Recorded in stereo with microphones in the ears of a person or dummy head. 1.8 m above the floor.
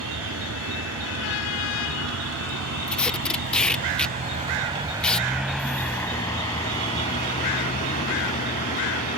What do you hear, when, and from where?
0.0 s a vehicle: 80° right; by 9.2 s 50° left (ahead or behind)
2.9 s tape being pulled: centre (ahead or behind)